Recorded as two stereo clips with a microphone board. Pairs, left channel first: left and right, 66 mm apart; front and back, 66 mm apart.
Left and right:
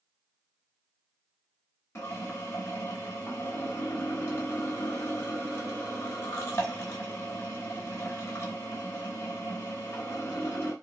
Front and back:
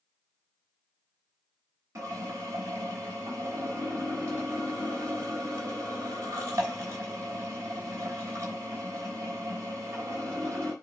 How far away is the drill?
About 3 m.